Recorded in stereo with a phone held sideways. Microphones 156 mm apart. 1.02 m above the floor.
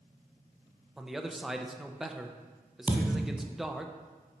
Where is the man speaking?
Centre (ahead or behind), 0.6 m.